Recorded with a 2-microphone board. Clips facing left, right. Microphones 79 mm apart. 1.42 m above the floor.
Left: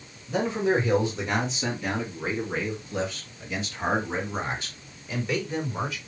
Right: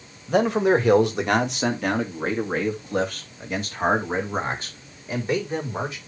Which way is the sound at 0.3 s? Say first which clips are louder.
Right 6 dB; 80° right.